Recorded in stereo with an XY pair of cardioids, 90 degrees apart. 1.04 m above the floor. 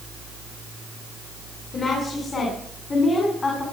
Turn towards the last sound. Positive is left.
turn(degrees=40)